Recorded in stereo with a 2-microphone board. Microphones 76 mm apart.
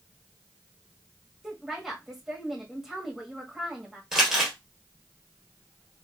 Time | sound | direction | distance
1.4 | a woman speaking | 5° right (ahead or behind) | 1.6 m
4.1 | crumpling | 10° right (ahead or behind) | 2.0 m